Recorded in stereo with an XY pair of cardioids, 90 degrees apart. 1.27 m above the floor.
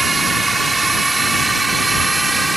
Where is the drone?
25° right; by 2.6 s 15° right.